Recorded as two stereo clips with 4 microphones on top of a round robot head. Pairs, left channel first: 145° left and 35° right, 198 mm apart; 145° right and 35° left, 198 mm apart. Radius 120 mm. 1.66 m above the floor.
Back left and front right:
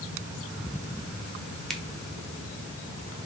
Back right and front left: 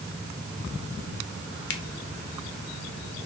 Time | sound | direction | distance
1.7 | a finger snap | 130° right | 1.4 m